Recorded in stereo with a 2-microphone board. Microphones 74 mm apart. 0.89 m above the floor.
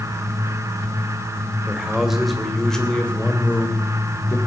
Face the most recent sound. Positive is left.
turn(degrees=35)  # may be behind; listen again after turning